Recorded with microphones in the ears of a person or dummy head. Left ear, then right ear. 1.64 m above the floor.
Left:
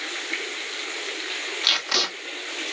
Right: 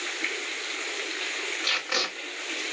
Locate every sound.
1.6 s tape being pulled: 40° left (ahead or behind), 2 m